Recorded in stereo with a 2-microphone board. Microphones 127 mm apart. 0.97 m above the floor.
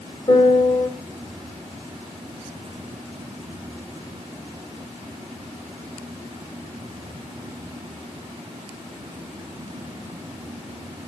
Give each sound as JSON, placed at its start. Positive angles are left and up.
{"t": 0.3, "sound": "a piano", "side_deg": 30, "distance_m": 4.5}